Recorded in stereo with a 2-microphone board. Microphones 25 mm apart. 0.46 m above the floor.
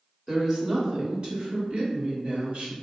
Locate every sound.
0.3 s a woman speaking: 20° right (ahead or behind), 1.3 m; by 2.7 s 65° right (ahead or behind), 1.6 m